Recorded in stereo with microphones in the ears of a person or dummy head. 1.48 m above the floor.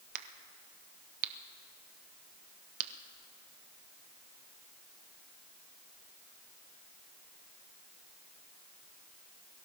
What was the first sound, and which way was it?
A crack, 55° right (ahead or behind).